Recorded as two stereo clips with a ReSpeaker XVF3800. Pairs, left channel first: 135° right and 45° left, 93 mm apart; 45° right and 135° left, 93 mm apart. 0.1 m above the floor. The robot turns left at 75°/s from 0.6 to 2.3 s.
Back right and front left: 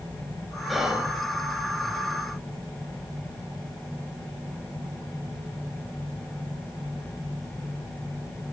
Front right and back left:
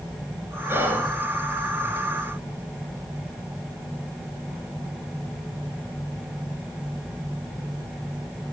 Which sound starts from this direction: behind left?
Whispering, at 0.7 s.